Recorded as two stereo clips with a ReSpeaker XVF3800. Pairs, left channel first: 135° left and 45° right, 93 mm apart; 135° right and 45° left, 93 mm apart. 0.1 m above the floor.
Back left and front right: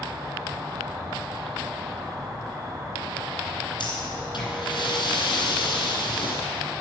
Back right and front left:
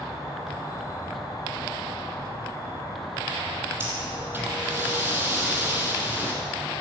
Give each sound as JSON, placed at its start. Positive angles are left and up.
{"t": 0.0, "sound": "an insect", "azimuth_deg": -90, "distance_m": 2.0}
{"t": 3.8, "sound": "breathing", "azimuth_deg": 110, "distance_m": 2.5}